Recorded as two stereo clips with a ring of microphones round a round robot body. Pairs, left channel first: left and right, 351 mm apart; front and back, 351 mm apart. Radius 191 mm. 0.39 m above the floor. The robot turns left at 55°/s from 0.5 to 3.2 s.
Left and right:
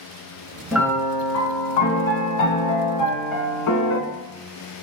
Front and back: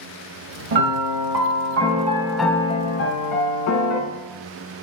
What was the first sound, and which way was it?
A piano, 175° right.